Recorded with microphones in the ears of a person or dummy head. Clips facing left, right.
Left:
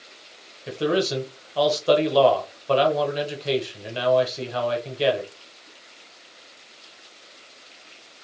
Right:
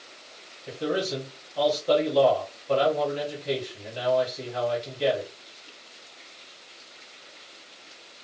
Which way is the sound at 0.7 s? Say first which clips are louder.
Left 5 dB; 75° left (ahead or behind).